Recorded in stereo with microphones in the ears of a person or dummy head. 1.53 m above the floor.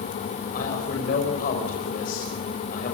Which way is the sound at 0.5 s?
55° left (ahead or behind).